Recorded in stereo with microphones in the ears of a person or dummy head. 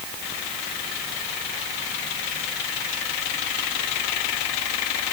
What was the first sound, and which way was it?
Only background noise.